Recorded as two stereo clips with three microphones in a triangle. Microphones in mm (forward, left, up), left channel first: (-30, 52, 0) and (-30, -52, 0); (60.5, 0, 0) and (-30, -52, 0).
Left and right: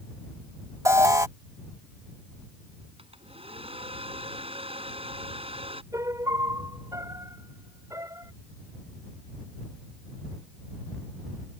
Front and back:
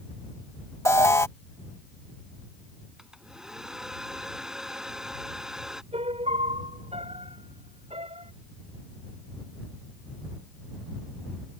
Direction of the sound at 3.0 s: 65° right.